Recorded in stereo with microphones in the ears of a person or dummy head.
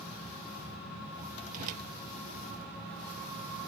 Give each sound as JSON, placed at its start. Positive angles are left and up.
{"t": 1.5, "sound": "a whoosh", "side_deg": -45}